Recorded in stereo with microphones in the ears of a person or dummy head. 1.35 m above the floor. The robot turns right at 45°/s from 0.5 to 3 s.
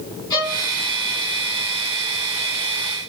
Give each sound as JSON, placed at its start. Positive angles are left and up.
{"t": 0.3, "sound": "a violin", "side_deg": 25, "distance_m": 2.5}